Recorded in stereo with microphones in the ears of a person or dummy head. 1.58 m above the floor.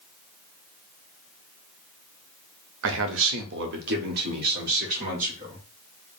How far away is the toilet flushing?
I don't hear a toilet flushing.